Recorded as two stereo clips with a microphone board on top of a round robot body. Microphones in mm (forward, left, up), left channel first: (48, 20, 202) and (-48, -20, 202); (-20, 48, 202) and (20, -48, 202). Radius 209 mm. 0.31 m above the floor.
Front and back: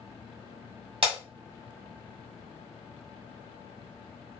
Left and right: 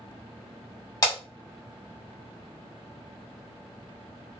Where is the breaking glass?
165° left, 1.4 m.